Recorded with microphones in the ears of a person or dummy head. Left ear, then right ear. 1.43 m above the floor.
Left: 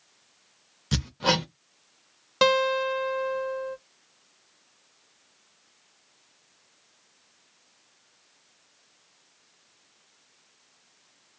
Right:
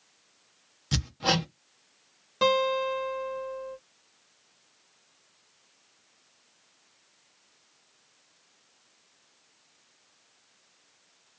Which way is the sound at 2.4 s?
35° left (ahead or behind).